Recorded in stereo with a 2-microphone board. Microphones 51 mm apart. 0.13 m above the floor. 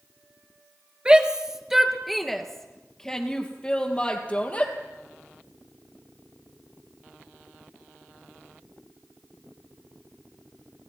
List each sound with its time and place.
1.1 s a shout: 20° right (ahead or behind), 2.5 m; by 4.7 s 30° left (ahead or behind), 4.5 m